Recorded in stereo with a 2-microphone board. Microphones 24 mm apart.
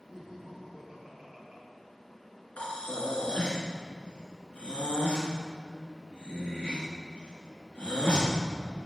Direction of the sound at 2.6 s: 80° left.